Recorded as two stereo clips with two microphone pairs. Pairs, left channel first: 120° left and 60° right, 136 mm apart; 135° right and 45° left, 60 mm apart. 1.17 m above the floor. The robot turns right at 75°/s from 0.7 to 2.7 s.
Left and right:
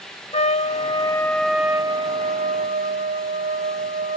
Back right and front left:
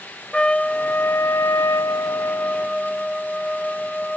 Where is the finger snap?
No finger snap in this recording.